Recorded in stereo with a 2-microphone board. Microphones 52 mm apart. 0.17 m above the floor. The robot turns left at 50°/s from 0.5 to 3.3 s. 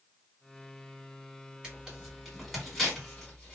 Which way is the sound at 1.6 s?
15° right (ahead or behind).